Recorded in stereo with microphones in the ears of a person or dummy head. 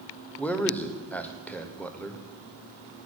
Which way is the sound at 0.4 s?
10° left (ahead or behind).